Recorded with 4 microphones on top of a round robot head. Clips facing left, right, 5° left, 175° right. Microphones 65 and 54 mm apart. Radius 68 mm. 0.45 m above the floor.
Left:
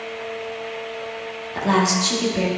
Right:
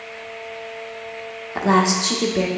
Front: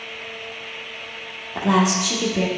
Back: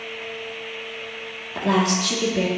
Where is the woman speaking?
70° right, 1.2 m.